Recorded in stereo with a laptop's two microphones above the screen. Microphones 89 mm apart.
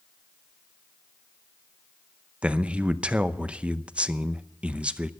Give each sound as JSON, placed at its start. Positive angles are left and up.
{"t": 2.4, "sound": "a man speaking", "side_deg": -15, "distance_m": 0.7}